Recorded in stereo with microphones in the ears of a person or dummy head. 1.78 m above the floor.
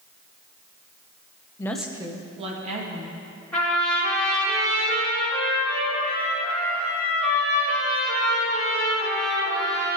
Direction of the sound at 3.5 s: 5° left (ahead or behind).